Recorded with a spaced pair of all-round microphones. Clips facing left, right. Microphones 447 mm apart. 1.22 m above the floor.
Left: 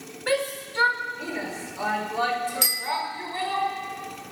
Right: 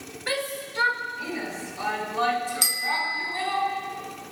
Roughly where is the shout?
Left.